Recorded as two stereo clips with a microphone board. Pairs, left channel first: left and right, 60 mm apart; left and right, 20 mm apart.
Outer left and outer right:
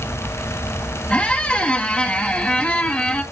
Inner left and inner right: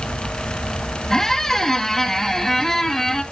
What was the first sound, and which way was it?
A squeak, 25° left (ahead or behind).